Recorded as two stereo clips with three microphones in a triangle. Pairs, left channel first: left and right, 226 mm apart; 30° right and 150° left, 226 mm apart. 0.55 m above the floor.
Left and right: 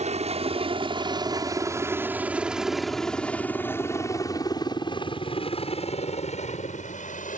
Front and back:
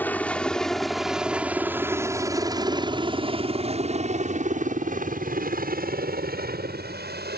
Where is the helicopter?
105° right; by 7.4 s 130° left.